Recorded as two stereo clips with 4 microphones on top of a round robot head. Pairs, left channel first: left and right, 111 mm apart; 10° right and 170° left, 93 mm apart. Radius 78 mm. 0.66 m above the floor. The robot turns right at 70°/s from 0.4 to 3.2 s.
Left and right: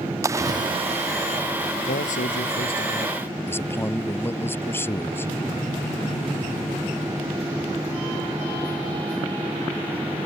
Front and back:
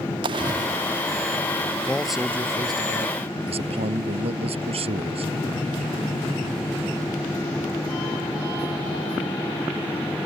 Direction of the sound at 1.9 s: 65° left.